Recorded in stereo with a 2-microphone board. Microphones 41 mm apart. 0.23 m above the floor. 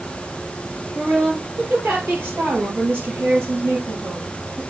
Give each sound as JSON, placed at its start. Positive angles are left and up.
{"t": 0.9, "sound": "a woman speaking", "side_deg": -70, "distance_m": 4.0}